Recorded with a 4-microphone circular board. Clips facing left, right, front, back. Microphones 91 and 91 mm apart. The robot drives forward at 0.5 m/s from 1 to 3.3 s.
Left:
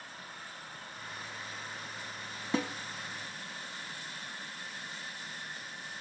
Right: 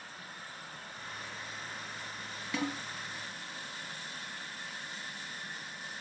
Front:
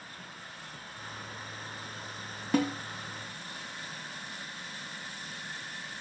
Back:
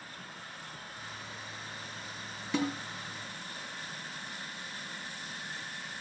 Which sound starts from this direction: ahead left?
A snare drum, at 2.5 s.